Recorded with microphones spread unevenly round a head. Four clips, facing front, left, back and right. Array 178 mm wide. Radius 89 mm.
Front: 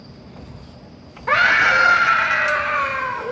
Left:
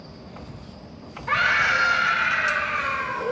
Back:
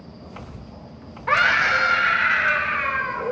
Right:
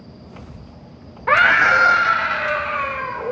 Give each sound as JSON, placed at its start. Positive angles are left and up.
{"t": 1.3, "sound": "a scream", "azimuth_deg": -70, "distance_m": 1.9}